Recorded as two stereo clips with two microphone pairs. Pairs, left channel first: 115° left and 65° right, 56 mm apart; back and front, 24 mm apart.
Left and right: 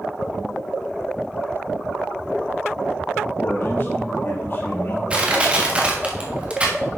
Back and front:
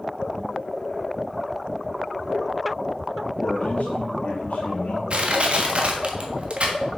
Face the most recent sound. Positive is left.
turn(degrees=-5)